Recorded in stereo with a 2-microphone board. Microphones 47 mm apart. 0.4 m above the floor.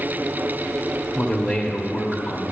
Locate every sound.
1.1 s a man speaking: 15° left (ahead or behind), 1.0 m